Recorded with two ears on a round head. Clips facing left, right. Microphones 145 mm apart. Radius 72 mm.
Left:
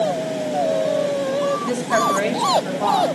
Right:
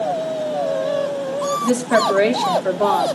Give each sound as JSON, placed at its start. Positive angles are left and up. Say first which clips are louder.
{"t": 1.6, "sound": "a woman speaking", "louder": "right 3 dB", "side_deg": -40, "distance_m": 1.9}